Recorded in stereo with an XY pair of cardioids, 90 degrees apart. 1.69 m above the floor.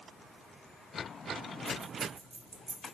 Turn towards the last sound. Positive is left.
turn(degrees=-20)